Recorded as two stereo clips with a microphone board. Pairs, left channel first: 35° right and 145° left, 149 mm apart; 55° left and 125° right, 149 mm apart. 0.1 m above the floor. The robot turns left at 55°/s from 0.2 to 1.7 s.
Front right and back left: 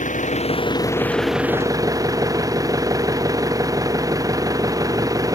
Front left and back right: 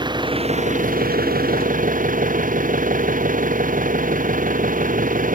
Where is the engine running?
65° right; by 5.3 s 150° right.